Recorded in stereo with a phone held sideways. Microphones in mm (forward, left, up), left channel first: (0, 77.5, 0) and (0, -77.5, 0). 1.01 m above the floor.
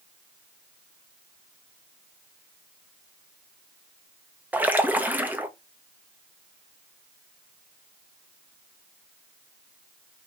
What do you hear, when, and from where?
4.5 s a splash: 10° right (ahead or behind), 0.5 m